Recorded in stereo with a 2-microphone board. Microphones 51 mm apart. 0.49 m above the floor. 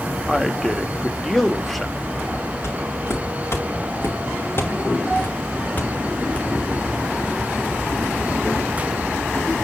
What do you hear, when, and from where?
0.3 s a man speaking: 5° left (ahead or behind), 1.0 m
2.6 s footsteps: 65° left (ahead or behind), 4 m; by 6.5 s 20° left (ahead or behind), 1.9 m